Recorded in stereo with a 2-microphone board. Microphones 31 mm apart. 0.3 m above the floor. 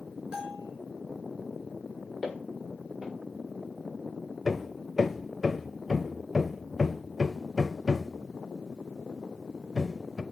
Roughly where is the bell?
Right.